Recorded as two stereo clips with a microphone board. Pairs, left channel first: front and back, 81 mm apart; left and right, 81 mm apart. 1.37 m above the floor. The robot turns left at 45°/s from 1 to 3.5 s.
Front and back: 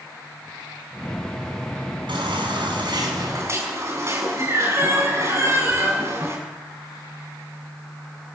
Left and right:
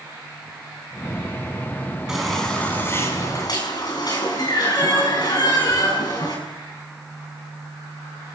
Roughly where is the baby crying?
Behind.